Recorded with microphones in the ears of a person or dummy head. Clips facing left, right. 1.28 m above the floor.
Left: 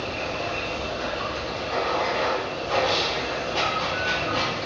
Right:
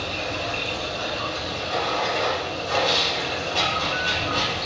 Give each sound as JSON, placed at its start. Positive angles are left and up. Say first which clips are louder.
{"t": 0.0, "sound": "running water", "louder": "even", "side_deg": 15, "distance_m": 1.5}